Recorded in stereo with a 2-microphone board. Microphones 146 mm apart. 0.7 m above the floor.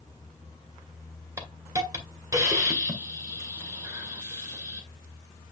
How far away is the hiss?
About 2 m.